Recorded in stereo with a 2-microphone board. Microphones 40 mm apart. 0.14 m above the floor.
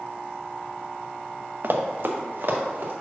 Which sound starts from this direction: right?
Running footsteps, at 1.6 s.